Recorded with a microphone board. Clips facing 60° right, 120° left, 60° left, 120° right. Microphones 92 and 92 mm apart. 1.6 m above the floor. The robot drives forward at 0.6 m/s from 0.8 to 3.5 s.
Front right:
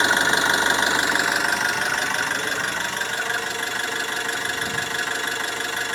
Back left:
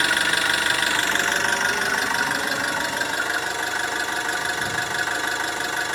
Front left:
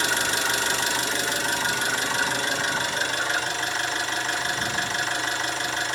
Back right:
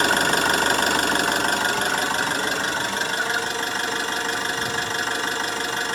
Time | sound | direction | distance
0.0 | an engine running | 120° right | 0.7 m